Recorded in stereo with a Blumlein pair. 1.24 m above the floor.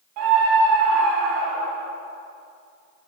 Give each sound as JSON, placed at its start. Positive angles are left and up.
{"t": 0.2, "sound": "a scream", "azimuth_deg": -40, "distance_m": 2.5}